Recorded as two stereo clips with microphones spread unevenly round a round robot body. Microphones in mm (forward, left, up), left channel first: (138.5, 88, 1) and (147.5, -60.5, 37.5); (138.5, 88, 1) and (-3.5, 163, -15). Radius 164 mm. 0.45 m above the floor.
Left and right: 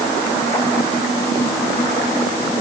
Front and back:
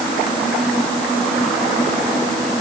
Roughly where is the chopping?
No chopping in this recording.